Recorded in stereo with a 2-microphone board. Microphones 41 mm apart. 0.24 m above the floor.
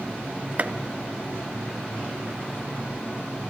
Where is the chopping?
40° right (ahead or behind), 0.6 m.